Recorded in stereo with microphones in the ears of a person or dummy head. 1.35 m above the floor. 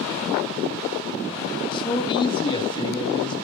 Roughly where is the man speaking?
Left.